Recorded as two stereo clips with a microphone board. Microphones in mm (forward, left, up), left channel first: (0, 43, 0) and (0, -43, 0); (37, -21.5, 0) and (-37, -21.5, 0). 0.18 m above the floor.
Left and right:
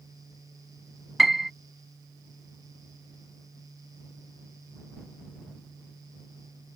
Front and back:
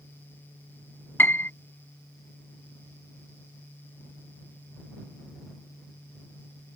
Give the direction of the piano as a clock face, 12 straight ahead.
12 o'clock.